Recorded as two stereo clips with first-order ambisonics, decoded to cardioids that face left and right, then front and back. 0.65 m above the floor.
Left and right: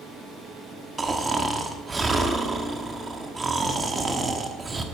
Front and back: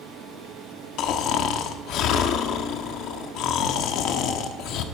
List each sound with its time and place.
1.0 s snoring: 20° right, 1.3 m